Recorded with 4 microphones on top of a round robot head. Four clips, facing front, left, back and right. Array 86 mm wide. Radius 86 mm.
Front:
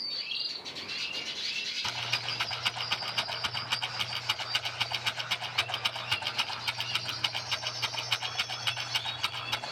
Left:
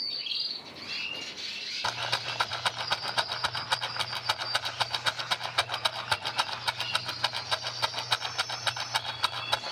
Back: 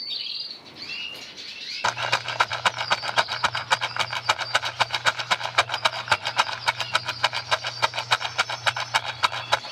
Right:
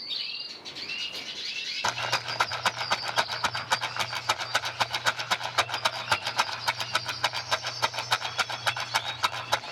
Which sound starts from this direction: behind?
A rattle, at 1.8 s.